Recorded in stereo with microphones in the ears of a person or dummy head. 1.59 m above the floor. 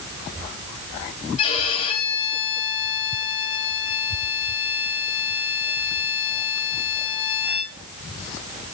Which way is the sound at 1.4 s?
30° left (ahead or behind).